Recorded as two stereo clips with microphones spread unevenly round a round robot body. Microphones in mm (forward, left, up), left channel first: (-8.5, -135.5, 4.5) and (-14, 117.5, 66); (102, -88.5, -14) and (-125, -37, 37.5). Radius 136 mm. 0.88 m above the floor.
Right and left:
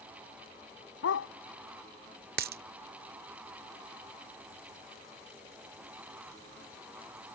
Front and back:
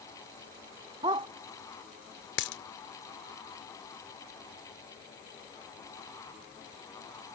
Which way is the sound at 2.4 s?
40° left.